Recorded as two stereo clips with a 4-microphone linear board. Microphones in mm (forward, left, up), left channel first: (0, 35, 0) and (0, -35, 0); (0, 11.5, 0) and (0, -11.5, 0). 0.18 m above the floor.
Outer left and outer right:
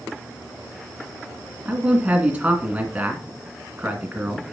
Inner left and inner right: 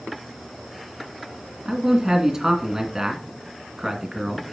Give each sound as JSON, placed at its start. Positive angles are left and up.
{"t": 1.6, "sound": "a man speaking", "side_deg": -20, "distance_m": 1.9}